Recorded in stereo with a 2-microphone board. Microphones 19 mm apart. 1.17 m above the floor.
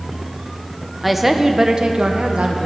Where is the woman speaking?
5° right (ahead or behind), 0.8 m; by 2.7 s 65° right (ahead or behind), 1.0 m.